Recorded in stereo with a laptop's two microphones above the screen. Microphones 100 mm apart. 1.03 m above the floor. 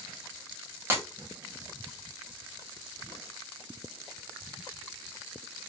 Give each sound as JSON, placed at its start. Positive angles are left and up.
{"t": 0.9, "sound": "breaking glass", "side_deg": -20, "distance_m": 1.5}